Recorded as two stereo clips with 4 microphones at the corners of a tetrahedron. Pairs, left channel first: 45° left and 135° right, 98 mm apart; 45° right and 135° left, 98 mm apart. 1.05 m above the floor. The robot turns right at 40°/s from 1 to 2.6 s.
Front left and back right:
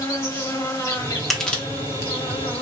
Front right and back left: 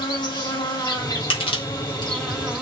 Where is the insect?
5° right, 1.4 m; by 2.6 s 60° left, 1.4 m.